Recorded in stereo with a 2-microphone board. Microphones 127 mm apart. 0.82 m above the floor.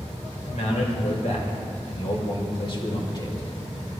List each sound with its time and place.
0.5 s a man speaking: 70° left (ahead or behind), 2.5 m; by 3.9 s 25° left (ahead or behind), 2.5 m